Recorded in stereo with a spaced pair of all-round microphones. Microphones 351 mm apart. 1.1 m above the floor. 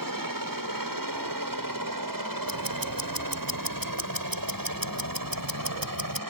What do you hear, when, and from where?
0.0 s a helicopter: 65° right (ahead or behind)
2.5 s ticking: 70° right (ahead or behind)